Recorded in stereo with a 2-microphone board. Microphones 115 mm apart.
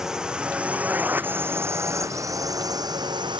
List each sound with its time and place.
0.0 s a drone: 5° right (ahead or behind); by 3.4 s 40° right (ahead or behind)